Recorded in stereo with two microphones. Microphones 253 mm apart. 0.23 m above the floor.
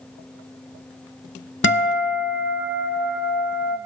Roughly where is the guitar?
Left.